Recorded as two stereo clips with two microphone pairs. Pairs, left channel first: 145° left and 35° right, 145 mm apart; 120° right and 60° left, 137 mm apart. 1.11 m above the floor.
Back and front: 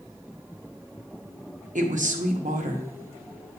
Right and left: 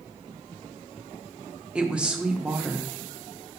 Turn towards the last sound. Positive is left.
turn(degrees=-25)